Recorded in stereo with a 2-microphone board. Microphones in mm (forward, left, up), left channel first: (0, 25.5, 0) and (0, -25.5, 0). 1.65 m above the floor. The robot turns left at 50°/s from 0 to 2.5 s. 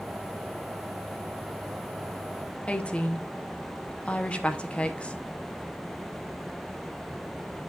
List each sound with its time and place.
2.7 s a woman speaking: 25° left (ahead or behind), 0.9 m